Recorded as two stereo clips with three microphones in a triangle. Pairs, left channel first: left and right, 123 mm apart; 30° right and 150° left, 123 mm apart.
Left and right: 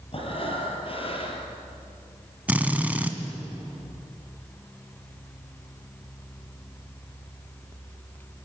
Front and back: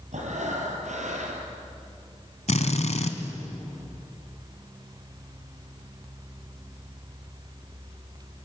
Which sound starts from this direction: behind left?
Breathing, at 0.1 s.